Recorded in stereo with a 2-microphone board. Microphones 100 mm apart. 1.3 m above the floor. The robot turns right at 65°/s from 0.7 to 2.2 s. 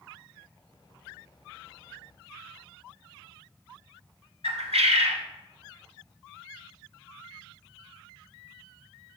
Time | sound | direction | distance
4.4 | a bird | 80° right | 1.4 m